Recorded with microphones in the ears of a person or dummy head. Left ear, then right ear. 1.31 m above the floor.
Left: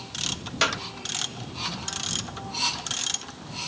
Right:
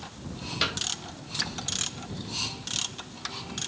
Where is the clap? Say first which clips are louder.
Left 4 dB; 25° left (ahead or behind).